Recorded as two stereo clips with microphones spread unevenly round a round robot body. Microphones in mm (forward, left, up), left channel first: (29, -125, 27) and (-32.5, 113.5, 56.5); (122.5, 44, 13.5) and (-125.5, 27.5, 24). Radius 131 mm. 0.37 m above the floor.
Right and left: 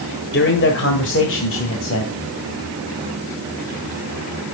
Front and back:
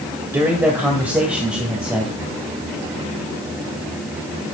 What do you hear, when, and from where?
0.3 s a man speaking: 95° right, 1.7 m; by 2.1 s 90° right, 2.5 m